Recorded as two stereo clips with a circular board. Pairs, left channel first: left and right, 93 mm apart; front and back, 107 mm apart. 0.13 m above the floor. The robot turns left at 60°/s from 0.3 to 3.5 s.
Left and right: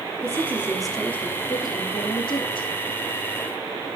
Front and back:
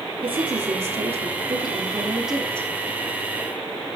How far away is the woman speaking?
About 4.5 m.